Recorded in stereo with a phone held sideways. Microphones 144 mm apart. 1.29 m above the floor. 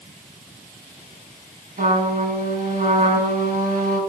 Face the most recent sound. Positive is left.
turn(degrees=-65)  # may be behind; listen again after turning